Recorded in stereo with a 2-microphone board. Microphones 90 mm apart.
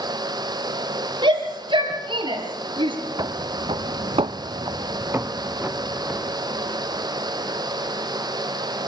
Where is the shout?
55° right (ahead or behind), 5.5 m; by 3.0 s 60° right (ahead or behind), 4 m.